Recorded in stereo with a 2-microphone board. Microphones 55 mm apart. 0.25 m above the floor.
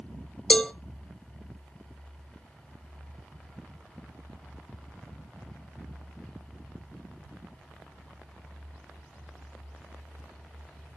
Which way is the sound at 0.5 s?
15° left (ahead or behind).